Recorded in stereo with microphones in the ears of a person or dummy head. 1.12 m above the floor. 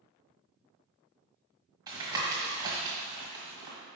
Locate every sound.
1.9 s tapping: 20° right (ahead or behind), 1.6 m